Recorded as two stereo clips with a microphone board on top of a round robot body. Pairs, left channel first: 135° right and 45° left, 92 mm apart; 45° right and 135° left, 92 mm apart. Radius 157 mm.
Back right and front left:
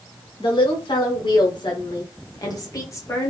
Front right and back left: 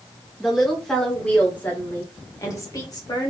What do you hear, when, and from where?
0.4 s a woman speaking: 135° right, 1.9 m; by 3.3 s 80° right, 1.8 m